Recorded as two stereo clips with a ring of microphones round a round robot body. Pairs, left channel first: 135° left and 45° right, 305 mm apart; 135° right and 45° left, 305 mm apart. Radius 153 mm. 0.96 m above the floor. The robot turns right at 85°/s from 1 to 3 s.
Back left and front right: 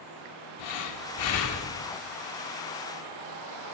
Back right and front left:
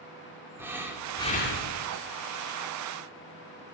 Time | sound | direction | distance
0.6 | breathing | 130° left | 2 m